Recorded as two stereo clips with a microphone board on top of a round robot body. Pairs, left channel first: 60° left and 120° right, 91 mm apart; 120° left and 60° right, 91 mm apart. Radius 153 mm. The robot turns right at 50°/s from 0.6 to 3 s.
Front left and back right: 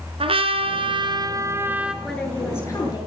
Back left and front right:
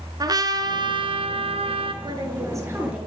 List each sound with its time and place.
0.2 s a trumpet: 105° right, 3 m; by 1.9 s 40° right, 3 m
2.0 s a woman speaking: 30° right, 8.5 m; by 3.1 s 20° left, 8.5 m